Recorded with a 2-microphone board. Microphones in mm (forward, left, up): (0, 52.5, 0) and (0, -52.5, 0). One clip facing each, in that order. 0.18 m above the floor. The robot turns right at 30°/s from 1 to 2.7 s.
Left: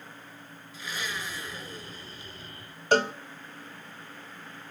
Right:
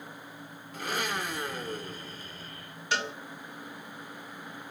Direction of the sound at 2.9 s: 50° left (ahead or behind).